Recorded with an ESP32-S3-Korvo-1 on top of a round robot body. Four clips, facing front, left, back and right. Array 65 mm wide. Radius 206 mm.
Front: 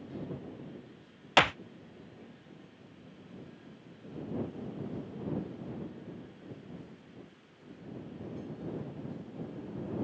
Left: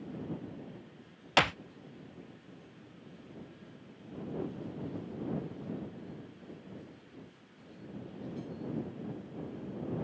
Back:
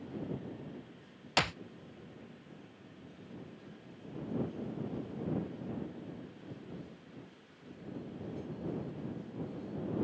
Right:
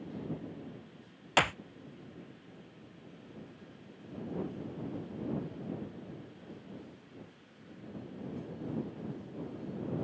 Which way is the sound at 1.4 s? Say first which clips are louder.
Left 1 dB, front 8 dB; 5° left.